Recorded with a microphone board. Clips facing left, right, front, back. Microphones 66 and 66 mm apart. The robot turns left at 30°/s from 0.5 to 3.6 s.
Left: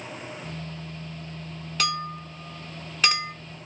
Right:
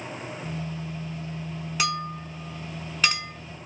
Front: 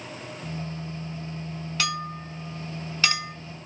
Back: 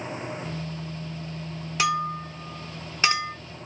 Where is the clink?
145° right, 0.8 m; by 3.3 s 170° left, 0.8 m.